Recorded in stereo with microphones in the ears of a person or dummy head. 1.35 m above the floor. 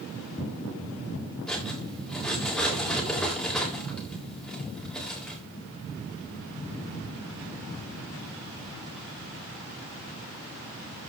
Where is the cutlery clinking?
Centre (ahead or behind), 3.5 m.